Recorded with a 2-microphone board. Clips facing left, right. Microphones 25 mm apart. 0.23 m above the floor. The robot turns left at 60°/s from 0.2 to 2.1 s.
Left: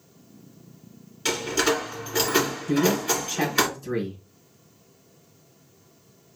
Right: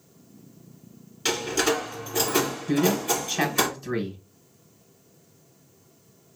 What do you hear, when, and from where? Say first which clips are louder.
1.2 s a door slam: left 1 dB; 10° right (ahead or behind), 2 m; by 3.7 s 35° left (ahead or behind), 2 m
2.7 s a man speaking: left 1 dB; 25° right (ahead or behind), 1.6 m